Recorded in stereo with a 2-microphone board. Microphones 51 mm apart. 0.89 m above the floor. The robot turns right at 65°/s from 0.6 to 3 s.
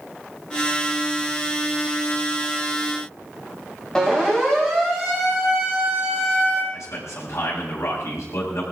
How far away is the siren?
About 6.5 m.